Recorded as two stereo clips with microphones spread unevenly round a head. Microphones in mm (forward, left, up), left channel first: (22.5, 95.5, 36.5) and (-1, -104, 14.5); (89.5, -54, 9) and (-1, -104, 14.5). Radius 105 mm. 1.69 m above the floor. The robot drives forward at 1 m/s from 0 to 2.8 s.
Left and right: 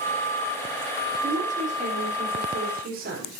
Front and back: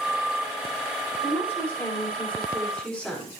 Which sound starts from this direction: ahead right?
A woman speaking, at 1.2 s.